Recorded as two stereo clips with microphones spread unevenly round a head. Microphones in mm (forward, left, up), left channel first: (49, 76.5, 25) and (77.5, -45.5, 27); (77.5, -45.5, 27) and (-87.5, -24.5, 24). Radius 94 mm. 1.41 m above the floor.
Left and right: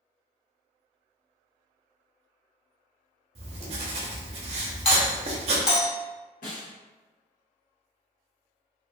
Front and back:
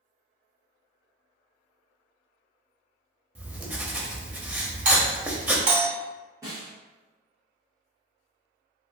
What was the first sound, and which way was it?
Writing, 110° right.